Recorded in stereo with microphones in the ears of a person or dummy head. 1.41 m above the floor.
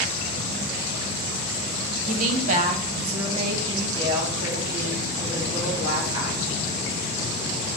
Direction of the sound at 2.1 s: 50° right (ahead or behind).